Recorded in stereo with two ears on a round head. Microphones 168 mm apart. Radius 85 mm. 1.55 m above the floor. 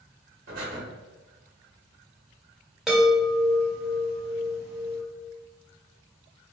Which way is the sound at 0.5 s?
50° right (ahead or behind).